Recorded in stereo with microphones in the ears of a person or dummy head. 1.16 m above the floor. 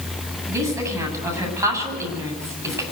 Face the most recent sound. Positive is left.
turn(degrees=-20)  # may be behind; listen again after turning